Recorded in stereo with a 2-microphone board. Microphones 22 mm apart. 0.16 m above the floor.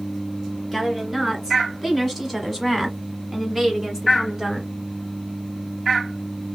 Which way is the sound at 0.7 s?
10° left (ahead or behind).